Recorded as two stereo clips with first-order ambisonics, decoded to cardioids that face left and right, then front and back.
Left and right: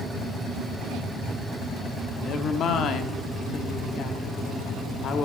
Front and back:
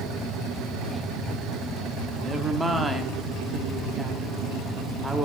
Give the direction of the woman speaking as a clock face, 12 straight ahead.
9 o'clock.